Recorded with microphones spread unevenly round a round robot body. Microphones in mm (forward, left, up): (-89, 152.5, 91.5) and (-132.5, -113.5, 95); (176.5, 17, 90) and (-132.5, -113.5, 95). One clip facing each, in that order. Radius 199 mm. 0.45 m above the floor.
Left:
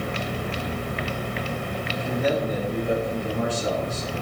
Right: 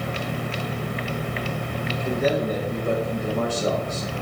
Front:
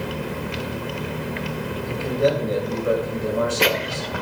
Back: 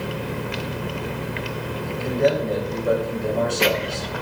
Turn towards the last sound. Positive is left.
turn(degrees=-55)